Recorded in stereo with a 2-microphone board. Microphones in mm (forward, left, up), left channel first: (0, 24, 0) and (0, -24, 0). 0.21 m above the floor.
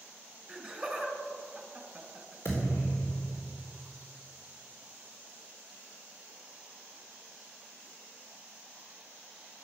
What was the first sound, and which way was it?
Laughter, centre (ahead or behind).